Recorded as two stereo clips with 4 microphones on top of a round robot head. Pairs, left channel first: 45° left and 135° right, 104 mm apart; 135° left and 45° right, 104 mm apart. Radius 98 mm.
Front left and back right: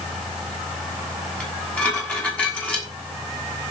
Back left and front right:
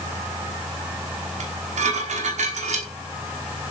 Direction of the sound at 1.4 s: 30° right.